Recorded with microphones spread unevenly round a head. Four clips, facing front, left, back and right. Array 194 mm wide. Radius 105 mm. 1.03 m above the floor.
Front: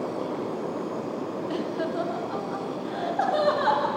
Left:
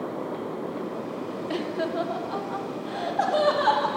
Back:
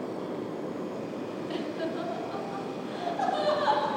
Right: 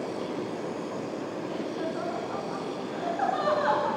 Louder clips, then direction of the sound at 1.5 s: Left 6 dB, front 4 dB; 80° left.